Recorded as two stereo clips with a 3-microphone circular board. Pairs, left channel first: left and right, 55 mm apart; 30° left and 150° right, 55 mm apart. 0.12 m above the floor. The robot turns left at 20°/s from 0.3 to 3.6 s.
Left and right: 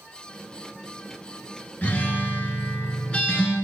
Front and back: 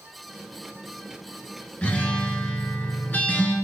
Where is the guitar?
65° left, 0.6 m; by 3.5 s 30° left, 0.6 m.